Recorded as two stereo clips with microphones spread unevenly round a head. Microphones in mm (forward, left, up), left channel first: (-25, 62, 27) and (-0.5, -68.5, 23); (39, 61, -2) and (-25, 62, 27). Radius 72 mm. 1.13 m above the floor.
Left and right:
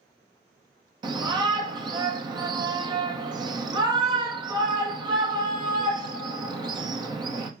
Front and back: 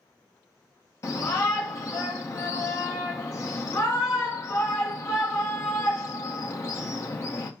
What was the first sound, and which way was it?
A shout, 20° right.